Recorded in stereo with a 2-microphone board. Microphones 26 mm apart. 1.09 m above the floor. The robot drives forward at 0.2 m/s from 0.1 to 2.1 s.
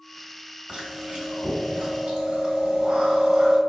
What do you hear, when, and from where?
0.7 s chewing: 25° right (ahead or behind), 1.3 m